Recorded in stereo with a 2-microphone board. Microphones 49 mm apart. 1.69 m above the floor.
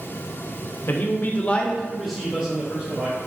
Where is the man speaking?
45° left (ahead or behind), 0.6 m; by 3.2 s 30° right (ahead or behind), 1.0 m.